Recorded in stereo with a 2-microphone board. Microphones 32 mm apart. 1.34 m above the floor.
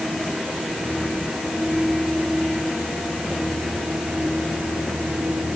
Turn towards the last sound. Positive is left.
No sound to turn to.